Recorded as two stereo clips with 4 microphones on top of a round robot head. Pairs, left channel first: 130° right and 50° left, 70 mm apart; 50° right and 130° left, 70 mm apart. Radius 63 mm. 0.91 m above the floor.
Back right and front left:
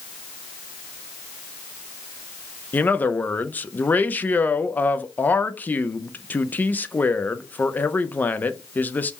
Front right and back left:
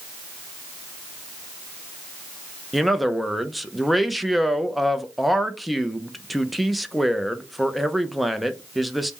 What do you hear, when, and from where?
2.7 s a man speaking: 140° right, 0.5 m